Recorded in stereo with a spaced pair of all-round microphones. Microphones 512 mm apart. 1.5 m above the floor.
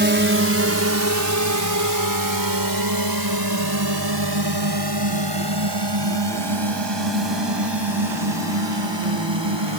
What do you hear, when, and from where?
0.0 s a drone: 20° right (ahead or behind); by 9.8 s 55° right (ahead or behind)